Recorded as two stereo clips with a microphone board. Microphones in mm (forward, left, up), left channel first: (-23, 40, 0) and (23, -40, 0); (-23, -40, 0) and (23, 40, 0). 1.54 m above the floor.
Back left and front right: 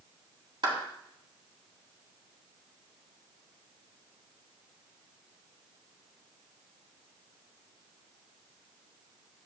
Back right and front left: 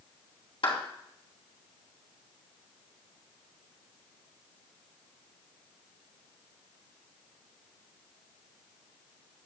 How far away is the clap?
About 3 m.